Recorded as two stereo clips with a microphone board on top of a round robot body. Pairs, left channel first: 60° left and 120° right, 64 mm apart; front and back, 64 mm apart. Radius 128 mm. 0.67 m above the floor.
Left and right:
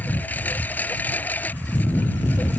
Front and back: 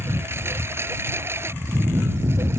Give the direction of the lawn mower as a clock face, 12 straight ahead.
8 o'clock.